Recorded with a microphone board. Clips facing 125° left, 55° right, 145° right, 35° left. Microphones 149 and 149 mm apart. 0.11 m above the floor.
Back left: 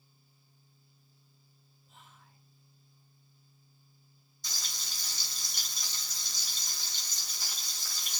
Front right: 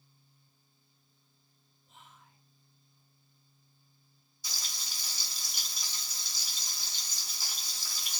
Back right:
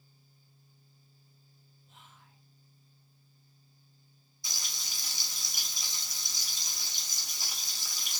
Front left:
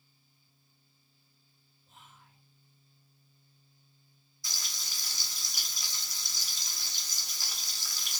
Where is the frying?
125° right, 1.3 m.